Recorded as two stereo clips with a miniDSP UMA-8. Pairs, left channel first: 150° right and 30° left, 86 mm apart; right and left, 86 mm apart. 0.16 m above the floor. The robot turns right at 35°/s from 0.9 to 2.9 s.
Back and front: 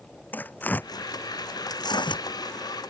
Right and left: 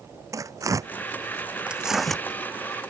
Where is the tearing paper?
140° left; by 2.2 s 175° right.